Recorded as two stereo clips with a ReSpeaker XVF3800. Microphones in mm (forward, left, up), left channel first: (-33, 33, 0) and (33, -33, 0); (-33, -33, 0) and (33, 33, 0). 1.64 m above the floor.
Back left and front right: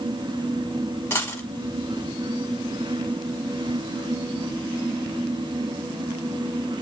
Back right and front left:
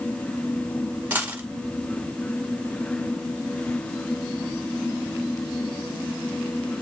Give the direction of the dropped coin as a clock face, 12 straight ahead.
9 o'clock.